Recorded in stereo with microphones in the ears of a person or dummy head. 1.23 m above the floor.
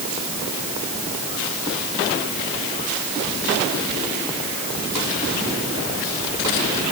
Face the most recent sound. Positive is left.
No sound to turn to.